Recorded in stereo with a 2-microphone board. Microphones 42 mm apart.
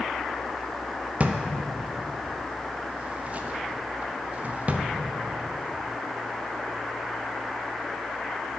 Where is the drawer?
35° right (ahead or behind), 0.6 m.